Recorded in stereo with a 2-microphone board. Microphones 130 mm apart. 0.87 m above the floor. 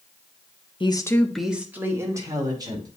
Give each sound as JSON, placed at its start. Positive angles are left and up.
{"t": 0.8, "sound": "a woman speaking", "side_deg": 40, "distance_m": 1.0}